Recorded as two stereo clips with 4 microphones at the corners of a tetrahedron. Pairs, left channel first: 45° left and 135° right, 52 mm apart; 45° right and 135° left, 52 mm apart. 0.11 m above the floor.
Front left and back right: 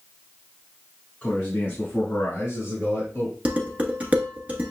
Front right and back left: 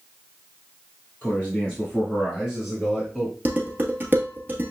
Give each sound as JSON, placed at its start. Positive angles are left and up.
{"t": 1.2, "sound": "a man speaking", "azimuth_deg": -10, "distance_m": 1.5}
{"t": 3.5, "sound": "dishes clattering", "azimuth_deg": 170, "distance_m": 1.2}